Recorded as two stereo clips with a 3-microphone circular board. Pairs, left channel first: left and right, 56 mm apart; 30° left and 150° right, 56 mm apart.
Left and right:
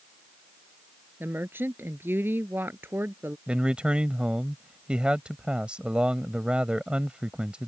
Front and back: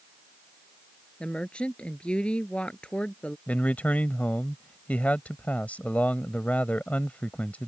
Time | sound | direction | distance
1.2 | a woman speaking | 40° right | ?
3.5 | a man speaking | 25° right | ?